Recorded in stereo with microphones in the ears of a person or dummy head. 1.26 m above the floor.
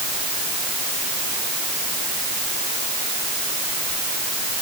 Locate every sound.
Only background noise.